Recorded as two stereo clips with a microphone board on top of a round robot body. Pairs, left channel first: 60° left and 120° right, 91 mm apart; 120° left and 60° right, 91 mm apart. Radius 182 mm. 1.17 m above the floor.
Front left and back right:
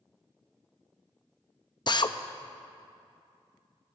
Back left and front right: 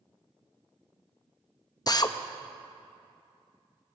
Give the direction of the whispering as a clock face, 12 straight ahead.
No whispering in this recording.